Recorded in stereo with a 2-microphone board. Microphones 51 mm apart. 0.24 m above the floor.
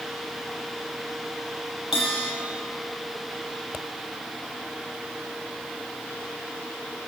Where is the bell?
10° right (ahead or behind), 9.5 m.